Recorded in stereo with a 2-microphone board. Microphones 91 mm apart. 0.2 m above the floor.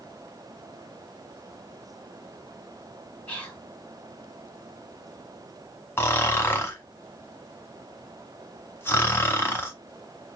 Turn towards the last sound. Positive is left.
turn(degrees=25)  # may be behind; listen again after turning